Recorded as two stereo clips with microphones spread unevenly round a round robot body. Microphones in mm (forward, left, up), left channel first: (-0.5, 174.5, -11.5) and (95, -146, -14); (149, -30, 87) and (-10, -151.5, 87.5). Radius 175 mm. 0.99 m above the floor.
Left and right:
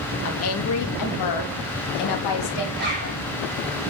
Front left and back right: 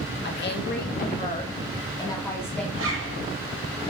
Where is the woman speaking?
60° left, 1.4 m; by 2.6 s 120° left, 1.9 m.